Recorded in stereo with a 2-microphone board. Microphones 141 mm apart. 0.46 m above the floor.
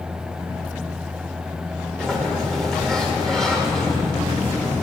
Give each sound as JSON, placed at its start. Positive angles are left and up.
{"t": 2.0, "sound": "a sliding door", "side_deg": 5, "distance_m": 1.8}